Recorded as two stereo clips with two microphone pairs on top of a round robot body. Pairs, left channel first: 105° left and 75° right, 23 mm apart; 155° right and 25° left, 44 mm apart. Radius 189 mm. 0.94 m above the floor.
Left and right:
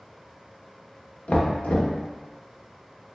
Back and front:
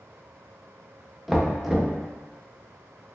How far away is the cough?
No cough in this recording.